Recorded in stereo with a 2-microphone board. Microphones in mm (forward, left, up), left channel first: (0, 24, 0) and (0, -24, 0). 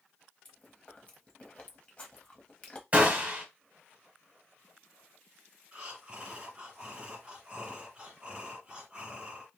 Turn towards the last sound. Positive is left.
turn(degrees=-20)  # may be behind; listen again after turning